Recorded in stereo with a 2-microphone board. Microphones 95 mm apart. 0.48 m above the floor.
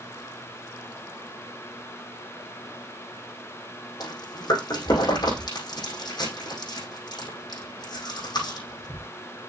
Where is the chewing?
55° left (ahead or behind), 5 m.